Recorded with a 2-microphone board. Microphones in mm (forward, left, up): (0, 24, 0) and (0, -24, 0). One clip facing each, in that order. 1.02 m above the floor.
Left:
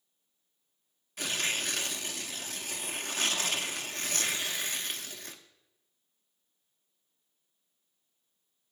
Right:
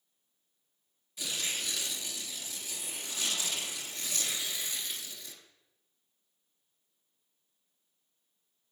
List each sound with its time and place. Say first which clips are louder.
1.2 s tearing paper: left 4 dB; 55° left (ahead or behind), 0.9 m